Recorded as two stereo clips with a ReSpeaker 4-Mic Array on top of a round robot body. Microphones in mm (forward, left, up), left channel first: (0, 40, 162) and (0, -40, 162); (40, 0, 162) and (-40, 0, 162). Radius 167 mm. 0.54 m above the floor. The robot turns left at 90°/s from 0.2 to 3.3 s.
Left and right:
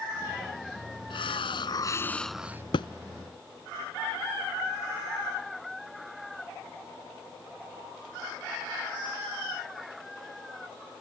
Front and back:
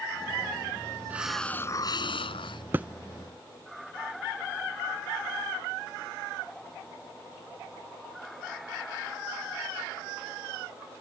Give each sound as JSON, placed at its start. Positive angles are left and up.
{"t": 1.1, "sound": "a hiss", "azimuth_deg": 110}
{"t": 2.7, "sound": "a thud", "azimuth_deg": 115}